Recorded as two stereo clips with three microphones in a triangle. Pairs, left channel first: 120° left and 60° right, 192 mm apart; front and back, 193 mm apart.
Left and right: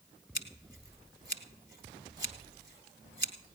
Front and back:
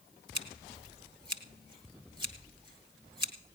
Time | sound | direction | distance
0.3 | scissors | 115° left | 1.1 m